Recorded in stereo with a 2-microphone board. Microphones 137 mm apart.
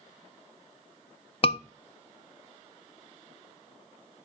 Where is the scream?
45° left (ahead or behind), 0.6 m.